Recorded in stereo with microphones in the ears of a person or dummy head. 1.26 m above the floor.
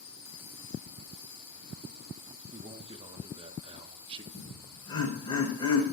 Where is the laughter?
25° left (ahead or behind), 5 m.